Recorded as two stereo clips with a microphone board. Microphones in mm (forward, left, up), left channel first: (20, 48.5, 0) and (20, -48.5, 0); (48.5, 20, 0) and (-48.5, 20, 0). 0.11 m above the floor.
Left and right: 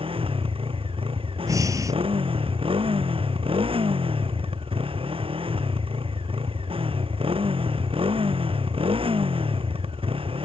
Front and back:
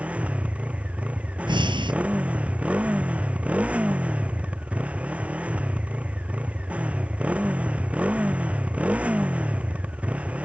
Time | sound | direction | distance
0.0 | a motorcycle | 105° right | ?
1.5 | breathing | 145° right | ?